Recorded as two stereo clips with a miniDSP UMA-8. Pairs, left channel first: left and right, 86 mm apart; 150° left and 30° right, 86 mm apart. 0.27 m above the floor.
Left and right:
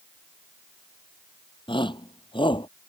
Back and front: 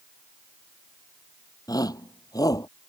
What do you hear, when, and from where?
1.7 s a shout: 105° left